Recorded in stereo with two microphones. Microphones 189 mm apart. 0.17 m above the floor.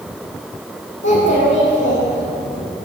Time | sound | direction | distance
1.0 | a child speaking | 75° left (ahead or behind) | 5.5 m